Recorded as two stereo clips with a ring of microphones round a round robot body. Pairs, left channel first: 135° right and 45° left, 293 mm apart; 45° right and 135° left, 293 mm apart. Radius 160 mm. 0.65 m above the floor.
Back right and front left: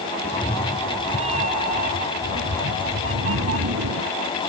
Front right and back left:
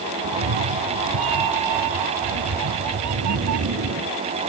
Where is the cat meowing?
125° left; by 4.1 s 85° left.